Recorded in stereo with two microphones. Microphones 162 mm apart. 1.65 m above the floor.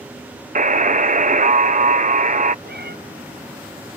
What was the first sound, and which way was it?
A buzzer, 50° right (ahead or behind).